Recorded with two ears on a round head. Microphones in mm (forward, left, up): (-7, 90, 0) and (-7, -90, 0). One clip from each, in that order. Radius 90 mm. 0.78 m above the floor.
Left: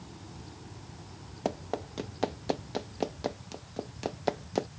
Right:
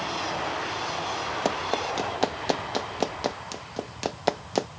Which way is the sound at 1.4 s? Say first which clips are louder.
Right 5 dB; 35° right (ahead or behind).